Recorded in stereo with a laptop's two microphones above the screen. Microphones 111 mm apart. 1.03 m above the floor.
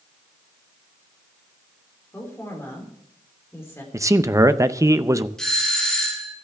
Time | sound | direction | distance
2.1 | a woman speaking | 25° left (ahead or behind) | 3.5 m
3.9 | a man speaking | 25° right (ahead or behind) | 0.6 m
5.4 | a doorbell | 5° left (ahead or behind) | 2.5 m